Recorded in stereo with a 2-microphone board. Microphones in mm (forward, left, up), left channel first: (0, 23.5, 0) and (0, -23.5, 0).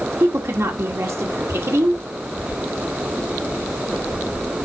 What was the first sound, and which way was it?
A woman speaking, 75° right (ahead or behind).